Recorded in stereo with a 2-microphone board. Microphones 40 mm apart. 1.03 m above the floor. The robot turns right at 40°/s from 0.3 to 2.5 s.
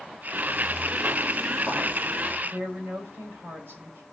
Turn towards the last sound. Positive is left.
turn(degrees=-70)  # may be behind; listen again after turning